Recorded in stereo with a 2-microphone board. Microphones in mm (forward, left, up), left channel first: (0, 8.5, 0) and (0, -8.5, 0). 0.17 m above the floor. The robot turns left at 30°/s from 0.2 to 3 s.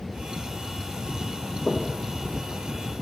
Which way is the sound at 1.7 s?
70° left (ahead or behind).